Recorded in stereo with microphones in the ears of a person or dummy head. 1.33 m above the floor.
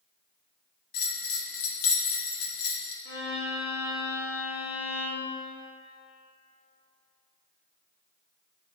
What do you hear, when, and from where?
0.9 s a bell: 80° left, 0.8 m
3.0 s a violin: 65° left (ahead or behind), 2.5 m